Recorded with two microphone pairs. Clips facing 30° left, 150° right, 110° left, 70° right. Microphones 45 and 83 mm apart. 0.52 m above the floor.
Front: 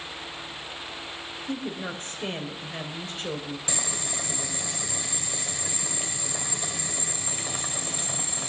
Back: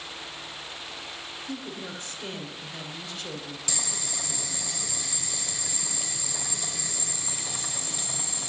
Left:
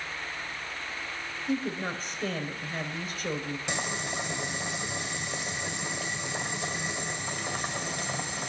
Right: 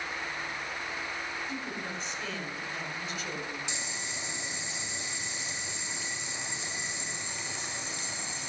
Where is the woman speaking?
75° left, 2 m.